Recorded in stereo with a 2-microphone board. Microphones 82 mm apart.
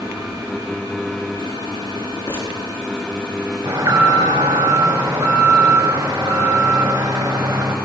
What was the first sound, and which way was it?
Crumpling, 30° left (ahead or behind).